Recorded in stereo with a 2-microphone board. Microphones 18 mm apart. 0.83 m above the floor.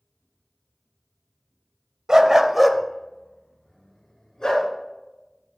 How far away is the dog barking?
About 0.8 m.